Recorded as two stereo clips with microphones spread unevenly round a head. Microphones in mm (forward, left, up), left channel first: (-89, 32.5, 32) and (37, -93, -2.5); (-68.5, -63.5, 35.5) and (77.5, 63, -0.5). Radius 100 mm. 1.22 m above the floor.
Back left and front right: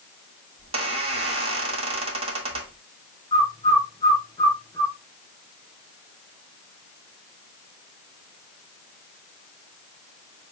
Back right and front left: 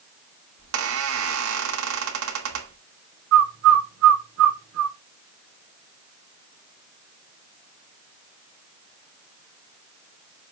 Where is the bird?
65° left, 0.5 m.